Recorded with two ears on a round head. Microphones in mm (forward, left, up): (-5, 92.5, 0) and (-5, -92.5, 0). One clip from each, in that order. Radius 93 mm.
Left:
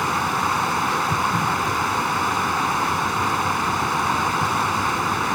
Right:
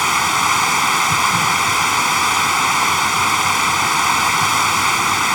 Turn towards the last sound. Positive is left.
turn(degrees=-70)  # may be behind; listen again after turning